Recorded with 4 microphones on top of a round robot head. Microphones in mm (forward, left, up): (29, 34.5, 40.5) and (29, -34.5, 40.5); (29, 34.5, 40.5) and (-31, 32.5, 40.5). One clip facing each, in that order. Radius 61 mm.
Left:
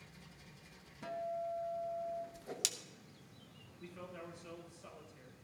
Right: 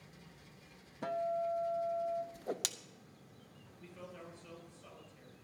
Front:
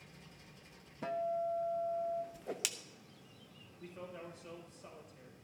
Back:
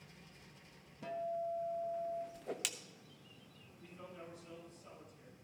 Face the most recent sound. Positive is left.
turn(degrees=15)